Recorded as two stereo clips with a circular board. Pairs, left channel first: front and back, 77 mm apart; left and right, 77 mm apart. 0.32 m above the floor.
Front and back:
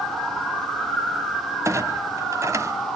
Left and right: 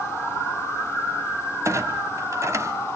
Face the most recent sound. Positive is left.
turn(degrees=-135)